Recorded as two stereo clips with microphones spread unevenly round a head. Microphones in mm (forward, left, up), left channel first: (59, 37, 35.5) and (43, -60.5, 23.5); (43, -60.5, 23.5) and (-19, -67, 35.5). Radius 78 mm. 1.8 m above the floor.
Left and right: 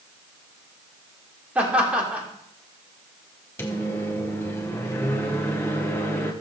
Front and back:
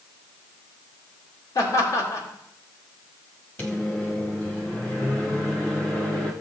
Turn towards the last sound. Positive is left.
turn(degrees=80)